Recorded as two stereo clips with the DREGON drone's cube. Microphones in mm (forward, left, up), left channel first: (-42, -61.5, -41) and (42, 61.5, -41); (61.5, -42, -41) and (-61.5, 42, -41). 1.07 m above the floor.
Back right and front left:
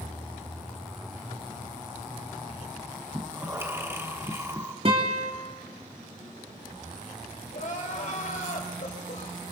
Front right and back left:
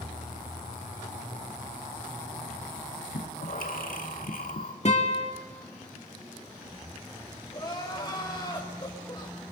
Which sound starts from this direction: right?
Crying, at 7.5 s.